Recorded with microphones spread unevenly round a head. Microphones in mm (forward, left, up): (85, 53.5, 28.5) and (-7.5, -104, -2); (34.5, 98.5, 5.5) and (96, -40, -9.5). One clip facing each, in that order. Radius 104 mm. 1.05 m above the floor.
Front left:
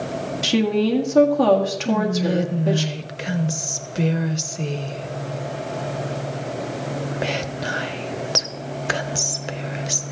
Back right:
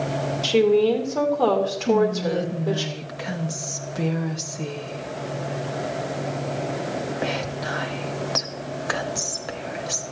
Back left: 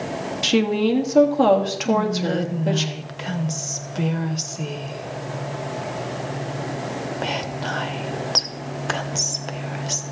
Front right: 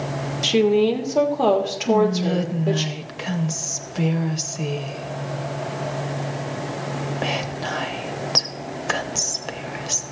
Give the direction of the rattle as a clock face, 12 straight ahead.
I don't hear a rattle.